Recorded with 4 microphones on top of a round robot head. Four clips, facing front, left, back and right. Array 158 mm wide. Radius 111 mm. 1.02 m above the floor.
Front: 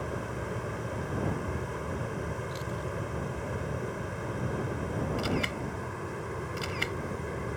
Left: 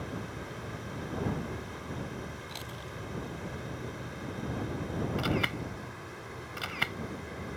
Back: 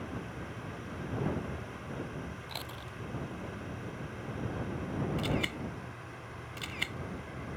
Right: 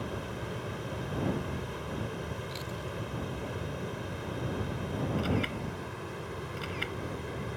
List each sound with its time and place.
0.0 s running water: 20° right
2.5 s chewing: 160° left
5.2 s a camera shutter: 80° left